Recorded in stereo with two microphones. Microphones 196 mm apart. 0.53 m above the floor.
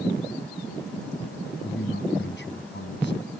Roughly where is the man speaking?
Left.